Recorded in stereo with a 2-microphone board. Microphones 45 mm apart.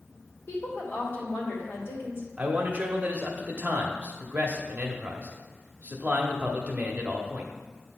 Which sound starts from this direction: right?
A man speaking, at 2.4 s.